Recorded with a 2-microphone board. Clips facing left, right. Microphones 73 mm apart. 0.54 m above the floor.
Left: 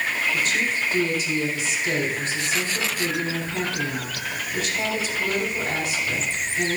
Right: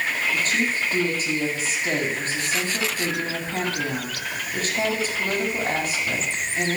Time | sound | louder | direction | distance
0.3 | a woman speaking | even | 40° right (ahead or behind) | 4.5 m